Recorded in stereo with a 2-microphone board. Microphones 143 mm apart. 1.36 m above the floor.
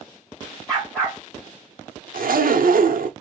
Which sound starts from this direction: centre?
A dog barking, at 0.7 s.